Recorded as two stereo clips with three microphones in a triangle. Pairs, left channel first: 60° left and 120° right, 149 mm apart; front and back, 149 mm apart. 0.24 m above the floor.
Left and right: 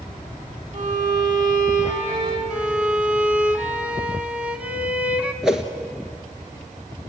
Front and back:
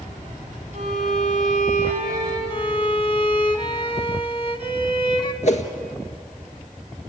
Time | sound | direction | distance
0.7 | a violin | 145° right | 8.5 m
2.5 | a violin | 40° right | 1.3 m
5.4 | a whoosh | 35° right | 1.7 m